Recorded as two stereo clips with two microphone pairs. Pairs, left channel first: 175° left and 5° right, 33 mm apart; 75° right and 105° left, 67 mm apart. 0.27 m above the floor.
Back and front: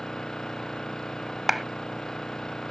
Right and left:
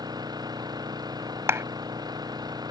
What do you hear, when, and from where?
0.0 s an engine running: 105° left
1.5 s a clap: 80° left